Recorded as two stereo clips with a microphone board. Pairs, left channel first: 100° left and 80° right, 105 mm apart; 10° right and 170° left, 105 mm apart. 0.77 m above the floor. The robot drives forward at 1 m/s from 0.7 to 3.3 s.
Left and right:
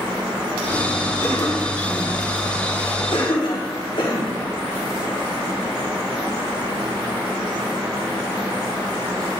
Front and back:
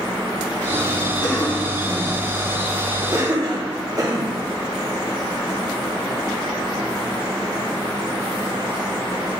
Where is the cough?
35° left, 1.8 m; by 4.4 s 125° left, 1.3 m.